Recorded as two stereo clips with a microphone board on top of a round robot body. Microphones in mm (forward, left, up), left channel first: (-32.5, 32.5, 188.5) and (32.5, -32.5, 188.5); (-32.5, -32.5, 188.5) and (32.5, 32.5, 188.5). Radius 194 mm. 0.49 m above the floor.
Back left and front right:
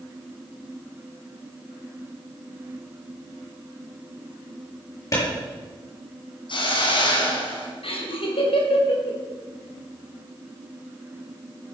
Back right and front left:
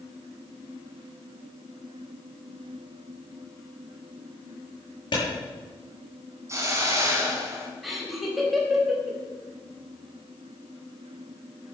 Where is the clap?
170° right, 8.5 m.